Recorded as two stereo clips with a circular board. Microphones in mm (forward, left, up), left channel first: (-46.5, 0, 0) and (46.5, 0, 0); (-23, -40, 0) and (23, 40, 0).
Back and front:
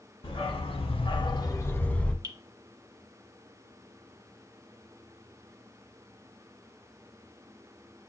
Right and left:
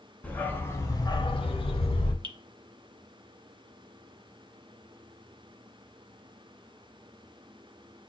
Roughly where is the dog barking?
Behind.